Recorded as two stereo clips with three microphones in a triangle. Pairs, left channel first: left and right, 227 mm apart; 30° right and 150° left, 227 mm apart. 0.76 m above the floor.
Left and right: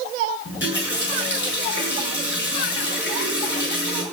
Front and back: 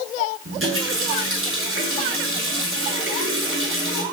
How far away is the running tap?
About 7 m.